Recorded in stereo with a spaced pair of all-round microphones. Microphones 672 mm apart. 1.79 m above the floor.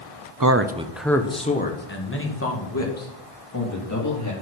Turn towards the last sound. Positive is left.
turn(degrees=25)  # may be behind; listen again after turning